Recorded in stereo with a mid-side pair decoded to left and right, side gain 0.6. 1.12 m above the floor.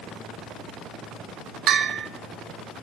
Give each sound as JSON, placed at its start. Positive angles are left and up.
{"t": 1.7, "sound": "a bell", "azimuth_deg": -55, "distance_m": 0.6}